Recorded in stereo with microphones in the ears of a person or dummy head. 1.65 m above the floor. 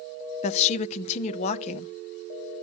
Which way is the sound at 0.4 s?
40° left (ahead or behind).